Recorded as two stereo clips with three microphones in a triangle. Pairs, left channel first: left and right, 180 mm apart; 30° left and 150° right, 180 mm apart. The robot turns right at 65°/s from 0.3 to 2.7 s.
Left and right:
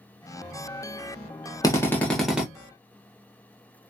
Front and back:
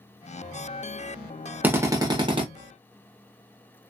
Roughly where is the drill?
Behind left.